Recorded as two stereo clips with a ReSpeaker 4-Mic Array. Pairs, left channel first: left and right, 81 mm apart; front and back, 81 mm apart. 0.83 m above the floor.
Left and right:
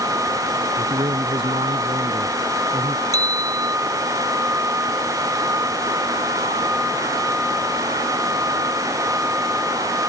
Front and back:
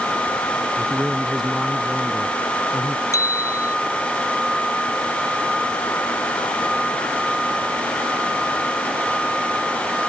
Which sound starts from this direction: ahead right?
A bicycle bell, at 3.1 s.